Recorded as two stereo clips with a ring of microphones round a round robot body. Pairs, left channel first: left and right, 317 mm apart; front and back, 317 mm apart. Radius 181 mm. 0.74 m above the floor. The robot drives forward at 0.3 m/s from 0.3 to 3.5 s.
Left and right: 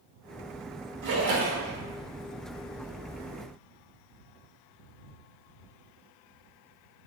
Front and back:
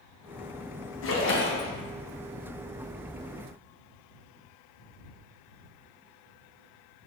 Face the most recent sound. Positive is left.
turn(degrees=-120)